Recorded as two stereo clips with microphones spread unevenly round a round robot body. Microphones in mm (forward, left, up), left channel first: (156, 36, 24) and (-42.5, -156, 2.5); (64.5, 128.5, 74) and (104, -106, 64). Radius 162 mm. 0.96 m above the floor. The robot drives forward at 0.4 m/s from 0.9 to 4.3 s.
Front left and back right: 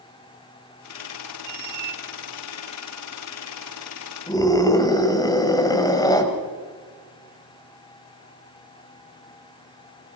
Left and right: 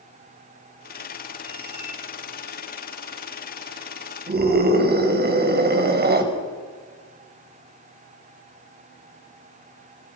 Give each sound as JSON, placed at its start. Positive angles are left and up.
{"t": 1.4, "sound": "a squeak", "azimuth_deg": -165, "distance_m": 2.0}
{"t": 4.3, "sound": "a scream", "azimuth_deg": -30, "distance_m": 6.0}